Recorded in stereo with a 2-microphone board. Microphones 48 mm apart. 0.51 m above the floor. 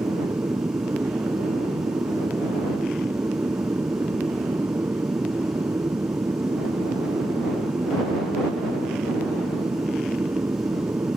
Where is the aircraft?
65° right (ahead or behind).